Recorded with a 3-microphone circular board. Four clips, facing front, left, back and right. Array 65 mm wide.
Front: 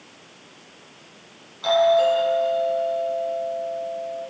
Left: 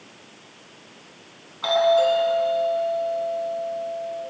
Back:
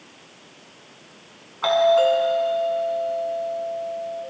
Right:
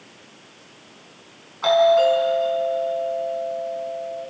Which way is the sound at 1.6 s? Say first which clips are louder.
Right 3 dB, even; 155° right.